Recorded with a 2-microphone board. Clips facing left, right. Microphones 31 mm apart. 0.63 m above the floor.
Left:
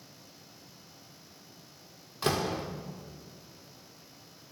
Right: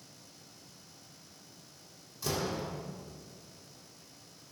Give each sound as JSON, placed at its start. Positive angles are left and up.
{"t": 2.2, "sound": "a door slam", "side_deg": 60, "distance_m": 1.4}